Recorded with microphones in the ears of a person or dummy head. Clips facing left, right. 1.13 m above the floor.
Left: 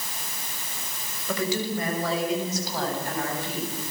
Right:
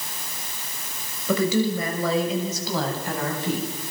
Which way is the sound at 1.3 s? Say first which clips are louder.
Right 6 dB; 80° right.